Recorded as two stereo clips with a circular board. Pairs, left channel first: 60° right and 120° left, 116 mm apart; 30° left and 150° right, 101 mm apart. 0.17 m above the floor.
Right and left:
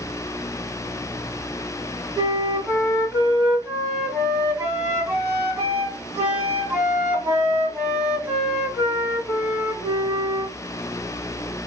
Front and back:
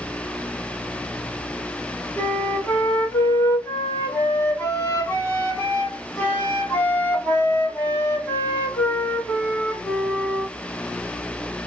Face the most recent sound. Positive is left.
turn(degrees=65)